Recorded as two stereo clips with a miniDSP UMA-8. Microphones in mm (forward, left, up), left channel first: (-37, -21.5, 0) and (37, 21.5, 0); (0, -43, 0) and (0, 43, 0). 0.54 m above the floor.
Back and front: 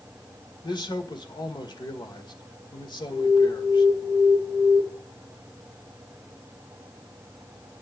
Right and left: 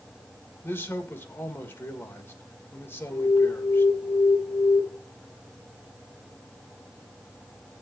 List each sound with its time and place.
0.6 s a man speaking: 150° right, 1.6 m
3.1 s an alarm: 170° right, 8 m